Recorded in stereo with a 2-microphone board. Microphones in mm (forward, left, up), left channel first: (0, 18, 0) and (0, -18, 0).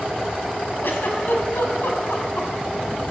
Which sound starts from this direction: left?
A giggle, at 0.8 s.